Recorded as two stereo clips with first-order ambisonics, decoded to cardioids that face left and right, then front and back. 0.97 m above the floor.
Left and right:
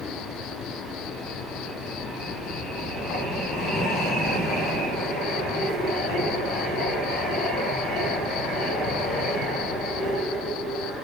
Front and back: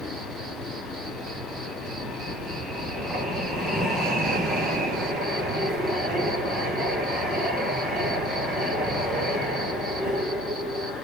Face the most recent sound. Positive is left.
turn(degrees=120)